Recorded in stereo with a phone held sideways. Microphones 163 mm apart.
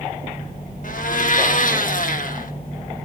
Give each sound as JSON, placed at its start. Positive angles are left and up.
{"t": 0.8, "sound": "a blender", "side_deg": 60, "distance_m": 1.4}